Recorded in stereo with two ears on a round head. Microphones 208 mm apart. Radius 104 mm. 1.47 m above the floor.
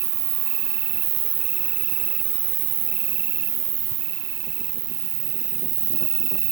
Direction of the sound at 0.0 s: 45° right (ahead or behind).